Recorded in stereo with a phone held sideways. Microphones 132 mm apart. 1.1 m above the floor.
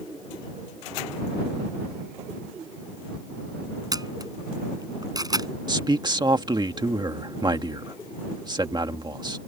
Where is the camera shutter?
30° right (ahead or behind).